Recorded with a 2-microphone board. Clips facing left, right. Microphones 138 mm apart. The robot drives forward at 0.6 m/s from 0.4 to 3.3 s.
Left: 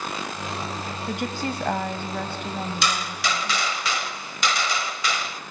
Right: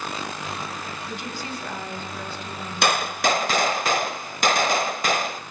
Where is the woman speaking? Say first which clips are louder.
Left 8 dB; 60° left (ahead or behind), 2.5 m; by 3.7 s 55° left (ahead or behind), 2.5 m.